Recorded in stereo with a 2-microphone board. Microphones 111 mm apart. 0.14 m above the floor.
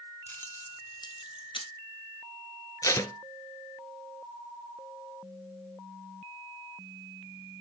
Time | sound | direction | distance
0.3 | keys jangling | 15° left (ahead or behind) | 0.8 m
2.8 | tape being pulled | 30° left (ahead or behind) | 0.7 m